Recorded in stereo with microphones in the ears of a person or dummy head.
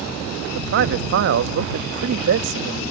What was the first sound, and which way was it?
A man speaking, 60° right (ahead or behind).